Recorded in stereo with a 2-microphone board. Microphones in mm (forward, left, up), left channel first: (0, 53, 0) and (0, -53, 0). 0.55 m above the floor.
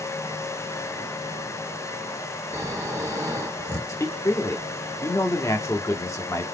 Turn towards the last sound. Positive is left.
turn(degrees=30)  # may be behind; listen again after turning